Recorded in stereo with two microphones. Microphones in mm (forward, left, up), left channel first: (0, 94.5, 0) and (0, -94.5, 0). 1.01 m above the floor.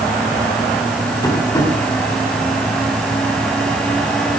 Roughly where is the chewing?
No chewing in this recording.